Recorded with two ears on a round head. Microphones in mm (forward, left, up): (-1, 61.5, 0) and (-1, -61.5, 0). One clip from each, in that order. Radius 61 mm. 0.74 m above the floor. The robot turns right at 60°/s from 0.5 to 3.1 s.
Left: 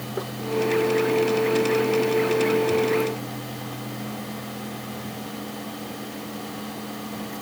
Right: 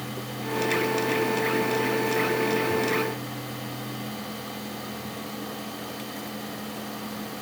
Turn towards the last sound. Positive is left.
No sound to turn to.